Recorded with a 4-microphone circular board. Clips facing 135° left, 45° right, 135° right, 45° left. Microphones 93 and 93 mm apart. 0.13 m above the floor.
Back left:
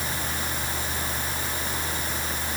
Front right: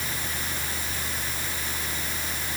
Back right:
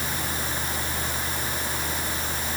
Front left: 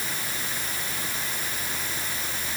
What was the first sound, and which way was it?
Only background noise.